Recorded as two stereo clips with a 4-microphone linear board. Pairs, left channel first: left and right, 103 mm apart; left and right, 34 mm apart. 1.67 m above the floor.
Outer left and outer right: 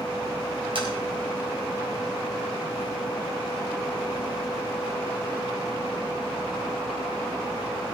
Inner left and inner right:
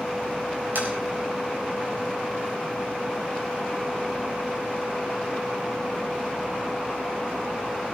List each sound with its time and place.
0.8 s tapping: 60° right (ahead or behind), 4 m